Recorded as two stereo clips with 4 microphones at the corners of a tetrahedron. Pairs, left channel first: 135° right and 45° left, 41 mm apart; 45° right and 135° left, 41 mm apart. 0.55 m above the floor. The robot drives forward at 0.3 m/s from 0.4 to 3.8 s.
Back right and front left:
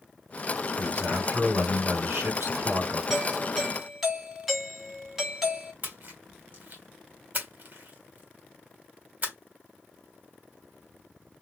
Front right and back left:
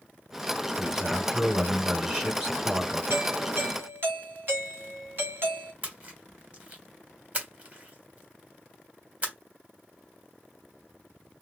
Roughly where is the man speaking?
Ahead left.